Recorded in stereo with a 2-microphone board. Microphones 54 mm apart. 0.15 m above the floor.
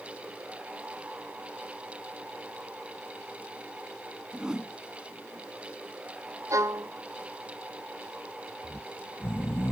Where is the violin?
70° right (ahead or behind).